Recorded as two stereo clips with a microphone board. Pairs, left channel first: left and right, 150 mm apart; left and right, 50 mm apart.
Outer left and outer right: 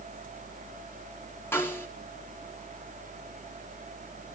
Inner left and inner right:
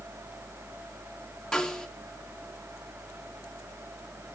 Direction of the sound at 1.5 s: 15° left (ahead or behind).